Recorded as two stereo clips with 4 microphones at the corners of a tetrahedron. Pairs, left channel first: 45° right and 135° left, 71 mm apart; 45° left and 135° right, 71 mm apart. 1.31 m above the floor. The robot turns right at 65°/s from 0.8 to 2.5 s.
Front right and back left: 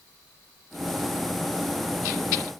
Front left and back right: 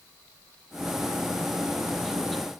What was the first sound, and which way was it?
Only background noise.